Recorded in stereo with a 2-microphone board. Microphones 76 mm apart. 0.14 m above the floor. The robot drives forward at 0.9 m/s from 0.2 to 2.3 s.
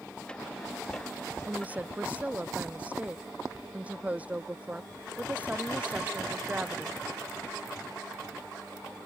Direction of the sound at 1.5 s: 20° right (ahead or behind).